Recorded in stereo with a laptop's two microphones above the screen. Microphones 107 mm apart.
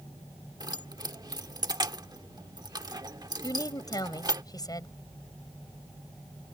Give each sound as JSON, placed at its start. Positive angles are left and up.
{"t": 0.6, "sound": "keys jangling", "side_deg": -40}
{"t": 3.4, "sound": "a woman speaking", "side_deg": 35}